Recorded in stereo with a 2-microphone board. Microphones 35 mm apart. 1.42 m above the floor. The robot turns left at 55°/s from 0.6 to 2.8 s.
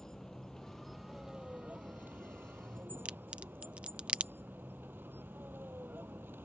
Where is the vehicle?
15° left (ahead or behind); by 6.5 s 85° right.